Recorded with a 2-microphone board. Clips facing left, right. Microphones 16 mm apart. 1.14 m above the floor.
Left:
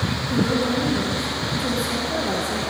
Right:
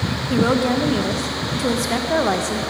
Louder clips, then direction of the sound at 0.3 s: Right 4 dB; 80° right.